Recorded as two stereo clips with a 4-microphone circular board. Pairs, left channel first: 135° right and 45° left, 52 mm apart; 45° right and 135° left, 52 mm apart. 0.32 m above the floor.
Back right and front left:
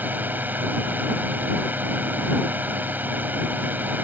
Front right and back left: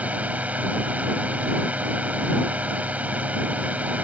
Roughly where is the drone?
Left.